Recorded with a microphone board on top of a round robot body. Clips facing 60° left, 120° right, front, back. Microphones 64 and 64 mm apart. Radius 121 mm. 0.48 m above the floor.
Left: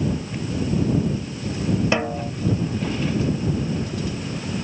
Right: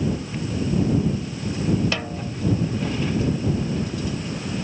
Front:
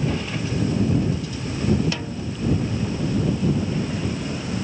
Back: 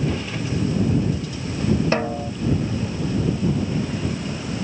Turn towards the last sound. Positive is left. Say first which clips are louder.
# left 5 dB, back 7 dB
turn(degrees=125)